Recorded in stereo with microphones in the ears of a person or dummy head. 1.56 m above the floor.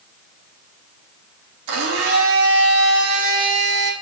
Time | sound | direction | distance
1.7 | a blender | 80° right | 3 m